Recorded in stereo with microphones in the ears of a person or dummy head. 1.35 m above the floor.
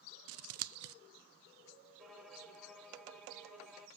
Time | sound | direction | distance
0.3 | scissors | 70° right (ahead or behind) | 0.5 m
2.0 | a violin | 5° right (ahead or behind) | 1.1 m